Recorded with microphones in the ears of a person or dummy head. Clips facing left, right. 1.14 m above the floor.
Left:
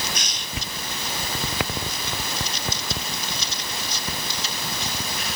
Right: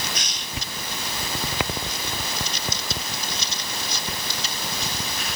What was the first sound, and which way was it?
Only background noise.